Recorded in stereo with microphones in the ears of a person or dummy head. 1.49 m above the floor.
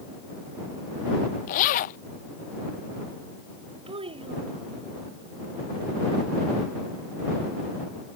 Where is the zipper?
40° left (ahead or behind).